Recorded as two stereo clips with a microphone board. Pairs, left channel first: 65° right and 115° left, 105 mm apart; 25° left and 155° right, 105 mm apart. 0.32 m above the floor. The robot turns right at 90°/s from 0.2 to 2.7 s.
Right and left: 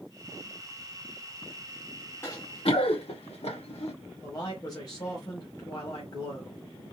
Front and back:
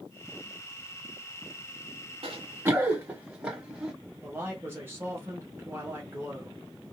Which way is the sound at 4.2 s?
100° right.